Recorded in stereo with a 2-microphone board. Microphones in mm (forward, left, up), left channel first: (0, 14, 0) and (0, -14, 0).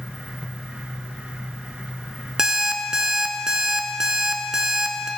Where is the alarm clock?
25° right (ahead or behind), 0.6 m.